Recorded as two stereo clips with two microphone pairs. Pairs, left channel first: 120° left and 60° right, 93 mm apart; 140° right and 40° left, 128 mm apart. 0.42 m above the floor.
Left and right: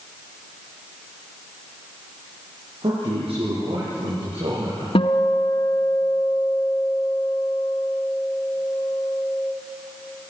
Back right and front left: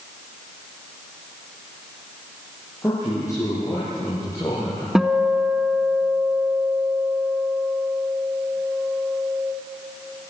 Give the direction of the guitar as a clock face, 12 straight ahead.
8 o'clock.